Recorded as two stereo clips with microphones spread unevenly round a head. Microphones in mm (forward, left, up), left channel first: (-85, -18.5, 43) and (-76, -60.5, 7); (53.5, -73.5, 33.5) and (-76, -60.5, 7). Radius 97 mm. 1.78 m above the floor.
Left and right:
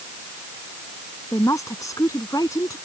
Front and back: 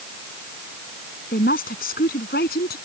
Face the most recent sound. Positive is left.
turn(degrees=40)